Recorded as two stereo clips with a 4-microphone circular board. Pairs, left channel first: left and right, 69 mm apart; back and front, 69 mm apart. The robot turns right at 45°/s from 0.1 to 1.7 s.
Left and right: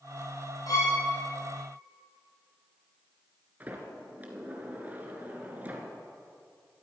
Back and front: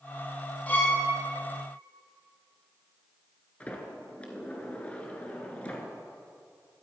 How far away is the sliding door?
About 1.8 m.